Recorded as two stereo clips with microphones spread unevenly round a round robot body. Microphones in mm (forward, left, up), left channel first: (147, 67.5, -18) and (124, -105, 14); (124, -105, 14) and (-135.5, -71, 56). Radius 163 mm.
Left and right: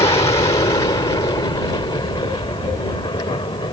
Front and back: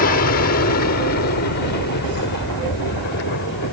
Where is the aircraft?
25° left.